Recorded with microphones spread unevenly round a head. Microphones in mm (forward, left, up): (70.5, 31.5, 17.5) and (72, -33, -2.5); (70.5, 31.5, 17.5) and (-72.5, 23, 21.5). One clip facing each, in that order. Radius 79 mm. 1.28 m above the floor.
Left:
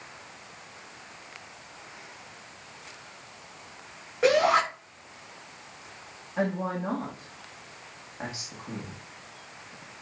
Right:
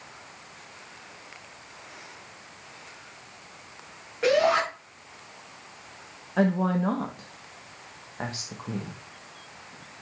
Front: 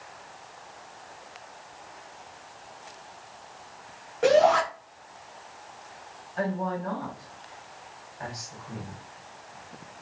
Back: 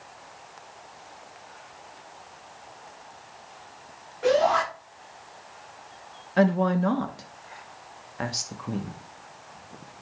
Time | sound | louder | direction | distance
4.2 | a shout | even, front 2 dB | 20° left | 3.5 m
6.4 | a woman speaking | right 5 dB, back 8 dB | 155° right | 1.0 m